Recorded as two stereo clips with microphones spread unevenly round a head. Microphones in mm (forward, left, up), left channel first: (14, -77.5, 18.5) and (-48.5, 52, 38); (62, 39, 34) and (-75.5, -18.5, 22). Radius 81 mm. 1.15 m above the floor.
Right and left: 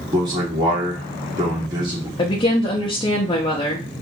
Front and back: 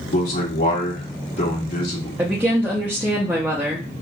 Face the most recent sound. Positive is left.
turn(degrees=-90)